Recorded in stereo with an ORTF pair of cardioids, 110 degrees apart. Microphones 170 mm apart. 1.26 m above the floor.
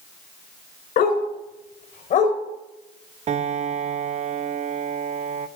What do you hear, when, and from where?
1.0 s a dog barking: 60° left, 2.5 m; by 2.4 s 45° left, 2.5 m
3.3 s a piano: 40° right, 0.6 m